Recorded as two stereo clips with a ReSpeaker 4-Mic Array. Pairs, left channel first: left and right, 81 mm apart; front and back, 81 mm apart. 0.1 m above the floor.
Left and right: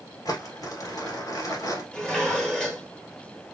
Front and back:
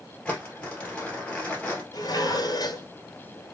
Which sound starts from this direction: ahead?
Dishes clattering, at 1.9 s.